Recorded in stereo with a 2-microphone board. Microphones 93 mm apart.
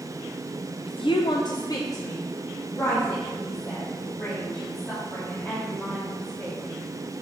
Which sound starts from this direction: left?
A woman speaking, at 0.9 s.